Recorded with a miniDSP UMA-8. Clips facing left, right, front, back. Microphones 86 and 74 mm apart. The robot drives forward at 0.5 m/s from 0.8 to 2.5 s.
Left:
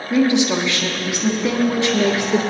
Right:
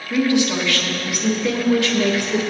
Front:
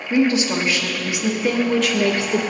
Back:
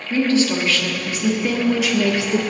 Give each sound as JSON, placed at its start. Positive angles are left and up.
{"t": 0.1, "sound": "a woman speaking", "azimuth_deg": 50, "distance_m": 1.1}